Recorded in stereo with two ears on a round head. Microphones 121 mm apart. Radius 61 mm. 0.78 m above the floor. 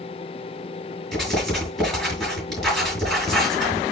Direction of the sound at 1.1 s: 5° left (ahead or behind).